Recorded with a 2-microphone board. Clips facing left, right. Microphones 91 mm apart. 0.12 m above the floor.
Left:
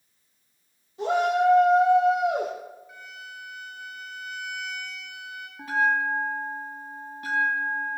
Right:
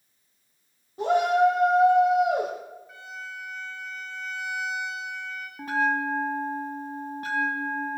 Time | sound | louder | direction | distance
1.0 | a shout | right 2 dB | 50° right (ahead or behind) | 3.5 m
2.9 | a violin | right 3 dB | 30° right (ahead or behind) | 4.5 m
5.6 | a bell | left 1 dB | 45° right (ahead or behind) | 2.5 m